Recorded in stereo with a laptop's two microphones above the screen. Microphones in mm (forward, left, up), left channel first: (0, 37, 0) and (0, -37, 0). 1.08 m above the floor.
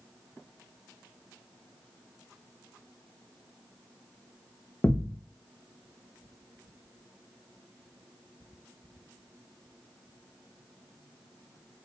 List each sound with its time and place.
4.8 s a thud: 35° left (ahead or behind), 0.5 m